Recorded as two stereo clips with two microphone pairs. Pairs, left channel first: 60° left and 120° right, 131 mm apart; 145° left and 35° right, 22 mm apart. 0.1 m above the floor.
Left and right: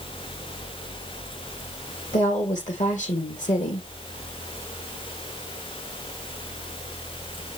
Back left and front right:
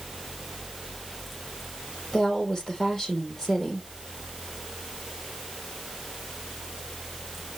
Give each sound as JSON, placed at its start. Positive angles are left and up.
{"t": 2.1, "sound": "a woman speaking", "azimuth_deg": 70, "distance_m": 4.5}